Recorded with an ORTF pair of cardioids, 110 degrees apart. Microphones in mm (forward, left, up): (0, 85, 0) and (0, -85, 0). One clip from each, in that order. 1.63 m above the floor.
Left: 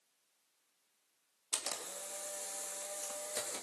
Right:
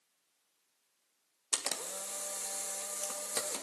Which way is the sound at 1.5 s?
35° right.